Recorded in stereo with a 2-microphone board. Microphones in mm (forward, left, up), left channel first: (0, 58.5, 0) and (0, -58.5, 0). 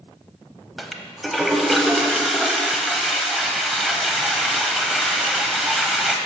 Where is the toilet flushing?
Centre (ahead or behind), 0.6 m.